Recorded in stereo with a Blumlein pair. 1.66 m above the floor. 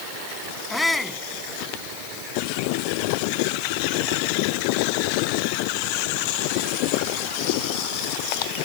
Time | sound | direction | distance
0.7 | a shout | 10° left | ?